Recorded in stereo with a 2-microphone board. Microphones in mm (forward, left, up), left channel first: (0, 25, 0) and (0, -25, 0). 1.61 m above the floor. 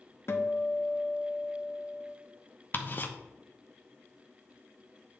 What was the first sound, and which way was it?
A guitar, 55° left (ahead or behind).